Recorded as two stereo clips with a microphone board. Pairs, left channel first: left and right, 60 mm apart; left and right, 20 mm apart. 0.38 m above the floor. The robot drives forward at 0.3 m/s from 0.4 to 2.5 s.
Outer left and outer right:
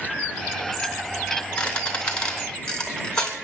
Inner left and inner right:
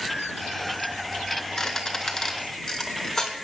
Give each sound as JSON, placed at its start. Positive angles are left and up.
{"t": 1.6, "sound": "a squeak", "side_deg": 20, "distance_m": 1.9}